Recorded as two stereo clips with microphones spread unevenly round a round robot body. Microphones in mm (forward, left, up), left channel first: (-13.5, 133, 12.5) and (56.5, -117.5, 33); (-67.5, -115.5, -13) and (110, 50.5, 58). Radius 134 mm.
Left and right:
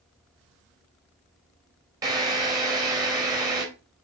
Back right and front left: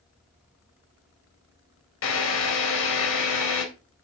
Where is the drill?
155° right, 3 m.